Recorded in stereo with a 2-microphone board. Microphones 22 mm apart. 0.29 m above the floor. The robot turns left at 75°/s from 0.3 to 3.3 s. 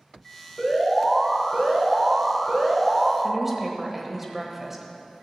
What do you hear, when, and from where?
0.6 s an alarm: 30° left, 2.5 m; by 3.1 s 160° right, 2.5 m
3.2 s a woman speaking: 15° right (ahead or behind), 1.2 m